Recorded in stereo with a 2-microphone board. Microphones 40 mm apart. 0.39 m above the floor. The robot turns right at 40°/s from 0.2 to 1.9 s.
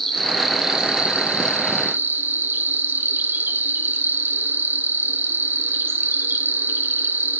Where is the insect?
170° left, 3 m; by 7.4 s 120° right, 3 m.